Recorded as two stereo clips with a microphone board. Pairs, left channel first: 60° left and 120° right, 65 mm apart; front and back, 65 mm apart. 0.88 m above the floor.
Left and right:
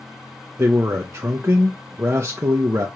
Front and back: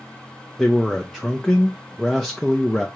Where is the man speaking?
85° right, 0.6 m.